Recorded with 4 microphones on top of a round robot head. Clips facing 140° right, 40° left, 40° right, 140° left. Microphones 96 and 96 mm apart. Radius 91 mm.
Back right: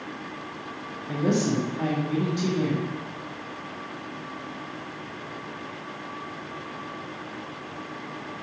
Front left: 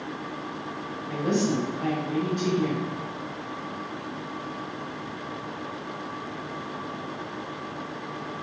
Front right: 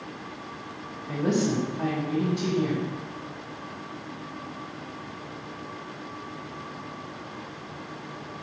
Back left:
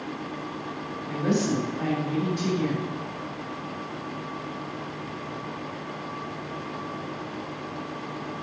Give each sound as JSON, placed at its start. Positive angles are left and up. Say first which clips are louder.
{"t": 1.1, "sound": "a woman speaking", "louder": "back right 1 dB, even", "azimuth_deg": -115, "distance_m": 1.2}